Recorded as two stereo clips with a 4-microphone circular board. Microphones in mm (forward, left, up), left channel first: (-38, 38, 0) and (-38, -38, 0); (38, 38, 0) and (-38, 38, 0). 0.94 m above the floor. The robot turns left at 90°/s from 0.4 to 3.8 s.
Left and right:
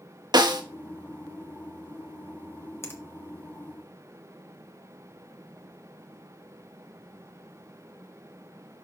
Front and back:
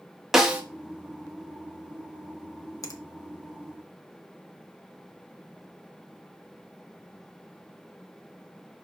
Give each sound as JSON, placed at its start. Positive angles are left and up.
{"t": 0.3, "sound": "a snare drum", "azimuth_deg": -95, "distance_m": 1.1}
{"t": 2.8, "sound": "a finger snap", "azimuth_deg": 40, "distance_m": 1.3}